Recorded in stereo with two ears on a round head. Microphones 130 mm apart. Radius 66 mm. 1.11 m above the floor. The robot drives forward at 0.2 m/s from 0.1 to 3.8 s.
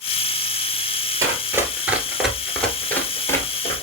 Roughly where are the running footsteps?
Centre.